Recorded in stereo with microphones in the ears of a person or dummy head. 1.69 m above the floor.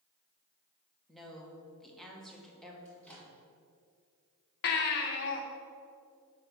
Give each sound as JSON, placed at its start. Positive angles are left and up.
{"t": 1.1, "sound": "a woman speaking", "side_deg": 0, "distance_m": 1.8}
{"t": 2.9, "sound": "a microwave", "side_deg": 5, "distance_m": 2.0}
{"t": 4.6, "sound": "a baby crying", "side_deg": 55, "distance_m": 0.9}